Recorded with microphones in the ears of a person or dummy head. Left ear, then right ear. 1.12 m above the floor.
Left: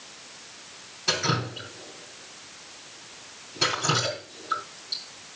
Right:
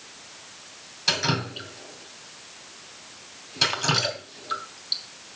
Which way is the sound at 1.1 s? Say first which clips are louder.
Right 1 dB; 30° right (ahead or behind).